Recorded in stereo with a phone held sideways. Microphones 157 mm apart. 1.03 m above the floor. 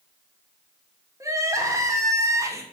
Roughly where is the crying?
Centre.